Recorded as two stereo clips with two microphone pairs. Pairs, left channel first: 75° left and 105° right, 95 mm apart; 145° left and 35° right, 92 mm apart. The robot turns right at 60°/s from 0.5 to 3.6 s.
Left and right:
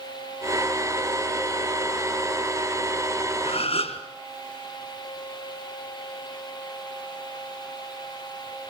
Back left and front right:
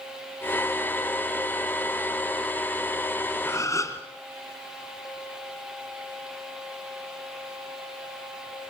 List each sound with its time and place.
3.5 s a gasp: 75° left, 3.5 m; by 4.0 s 85° left, 3.5 m